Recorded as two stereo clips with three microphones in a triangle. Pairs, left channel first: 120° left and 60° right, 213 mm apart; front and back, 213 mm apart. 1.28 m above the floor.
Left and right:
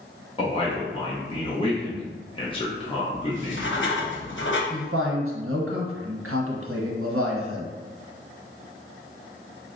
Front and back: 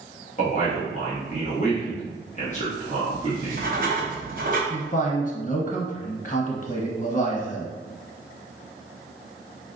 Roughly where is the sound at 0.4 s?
Ahead left.